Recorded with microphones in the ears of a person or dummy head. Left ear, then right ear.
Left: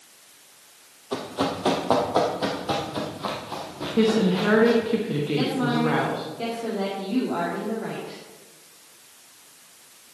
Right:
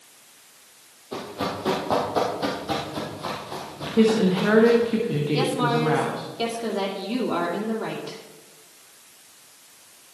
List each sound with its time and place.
1.1 s running footsteps: 40° left (ahead or behind), 2.5 m; by 4.9 s 5° right (ahead or behind), 4 m
4.0 s a woman speaking: centre (ahead or behind), 1.3 m
5.3 s a woman speaking: 80° right, 2.5 m